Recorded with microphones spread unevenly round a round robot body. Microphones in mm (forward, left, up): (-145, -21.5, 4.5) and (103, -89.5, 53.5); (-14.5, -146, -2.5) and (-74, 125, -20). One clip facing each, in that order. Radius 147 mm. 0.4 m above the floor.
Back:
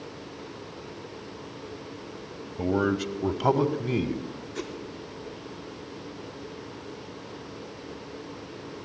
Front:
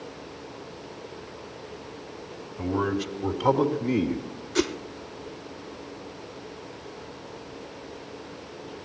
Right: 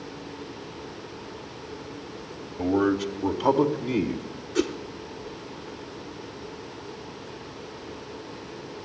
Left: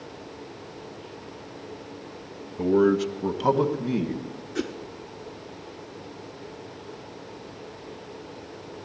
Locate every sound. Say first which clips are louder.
2.6 s a man speaking: back 2 dB, left 3 dB; 170° left, 1.7 m; by 4.2 s 165° right, 2 m
4.5 s a whoosh: front 12 dB, right 5 dB; straight ahead, 0.6 m